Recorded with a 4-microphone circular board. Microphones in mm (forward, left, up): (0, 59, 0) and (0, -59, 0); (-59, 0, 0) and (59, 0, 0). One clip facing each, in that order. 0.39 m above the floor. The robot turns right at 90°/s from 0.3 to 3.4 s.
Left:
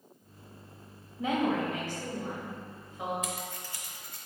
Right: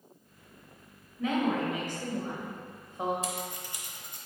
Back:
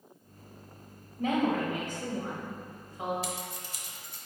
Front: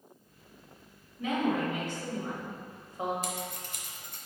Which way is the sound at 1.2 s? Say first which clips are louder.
Even, back 1 dB; 145° left.